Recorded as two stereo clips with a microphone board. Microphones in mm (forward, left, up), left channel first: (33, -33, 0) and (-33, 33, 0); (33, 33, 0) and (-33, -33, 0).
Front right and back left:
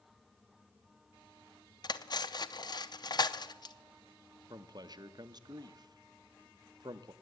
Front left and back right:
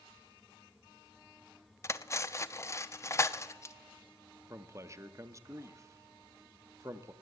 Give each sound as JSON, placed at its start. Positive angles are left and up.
{"t": 1.8, "sound": "cutlery clinking", "azimuth_deg": -10, "distance_m": 0.5}
{"t": 4.5, "sound": "a man speaking", "azimuth_deg": 175, "distance_m": 0.6}